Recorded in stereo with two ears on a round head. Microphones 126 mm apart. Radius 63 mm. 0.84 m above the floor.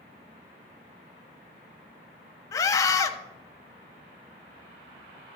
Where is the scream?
20° left (ahead or behind), 0.9 m.